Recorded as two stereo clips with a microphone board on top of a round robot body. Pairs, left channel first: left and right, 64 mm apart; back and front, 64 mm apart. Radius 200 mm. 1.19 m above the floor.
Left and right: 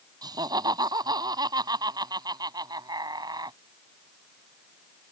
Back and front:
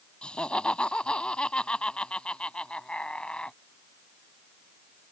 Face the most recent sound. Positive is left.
turn(degrees=-105)